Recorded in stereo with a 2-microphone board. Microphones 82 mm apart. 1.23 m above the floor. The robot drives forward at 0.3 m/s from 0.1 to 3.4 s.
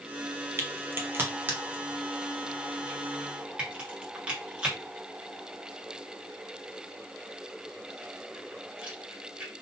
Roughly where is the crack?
Right.